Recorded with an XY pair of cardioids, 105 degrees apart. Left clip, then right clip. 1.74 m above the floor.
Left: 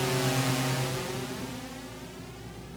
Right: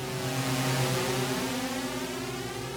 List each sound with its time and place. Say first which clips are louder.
0.0 s a drone: left 4 dB; 50° left; by 2.8 s 70° right